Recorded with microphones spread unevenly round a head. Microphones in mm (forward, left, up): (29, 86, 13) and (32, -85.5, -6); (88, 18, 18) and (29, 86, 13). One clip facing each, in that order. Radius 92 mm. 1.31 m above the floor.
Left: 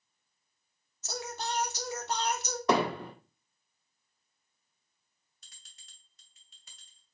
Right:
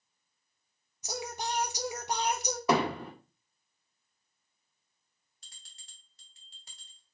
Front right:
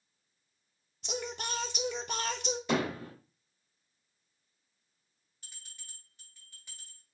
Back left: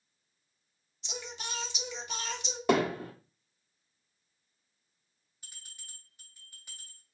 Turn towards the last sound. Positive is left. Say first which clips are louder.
# right 2 dB, back left 2 dB
turn(degrees=-145)